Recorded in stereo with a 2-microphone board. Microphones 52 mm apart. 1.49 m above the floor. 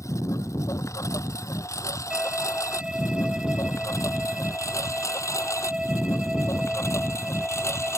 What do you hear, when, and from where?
0.0 s a lawn mower: 75° left (ahead or behind); by 8.0 s 65° left (ahead or behind)
2.1 s a violin: 15° right (ahead or behind)